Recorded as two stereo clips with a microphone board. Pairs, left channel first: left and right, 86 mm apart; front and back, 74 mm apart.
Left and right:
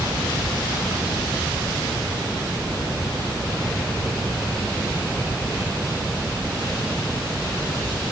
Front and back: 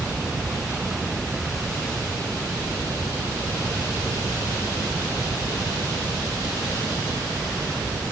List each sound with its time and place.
Only background noise.